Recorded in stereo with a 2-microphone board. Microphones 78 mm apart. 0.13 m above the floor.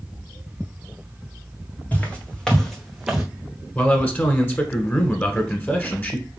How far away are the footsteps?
About 1.8 m.